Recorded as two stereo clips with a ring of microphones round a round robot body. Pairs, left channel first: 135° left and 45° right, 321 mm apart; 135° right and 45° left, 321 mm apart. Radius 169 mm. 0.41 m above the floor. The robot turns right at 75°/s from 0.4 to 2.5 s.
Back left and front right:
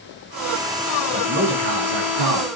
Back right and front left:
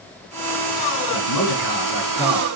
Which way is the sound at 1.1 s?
120° right.